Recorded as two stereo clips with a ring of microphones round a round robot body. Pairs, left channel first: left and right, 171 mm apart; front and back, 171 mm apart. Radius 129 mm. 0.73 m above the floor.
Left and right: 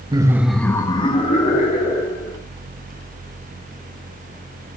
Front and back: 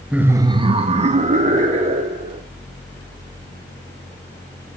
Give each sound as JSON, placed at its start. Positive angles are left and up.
{"t": 0.1, "sound": "laughter", "azimuth_deg": -105, "distance_m": 0.8}